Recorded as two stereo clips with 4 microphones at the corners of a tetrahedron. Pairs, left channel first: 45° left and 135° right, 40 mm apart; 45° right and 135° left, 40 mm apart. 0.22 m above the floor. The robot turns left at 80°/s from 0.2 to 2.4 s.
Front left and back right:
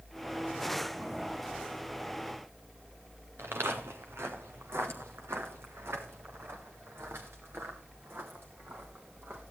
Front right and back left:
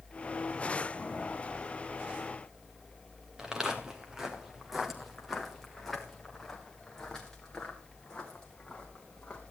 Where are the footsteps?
150° right, 3 m; by 9.5 s 110° right, 5 m.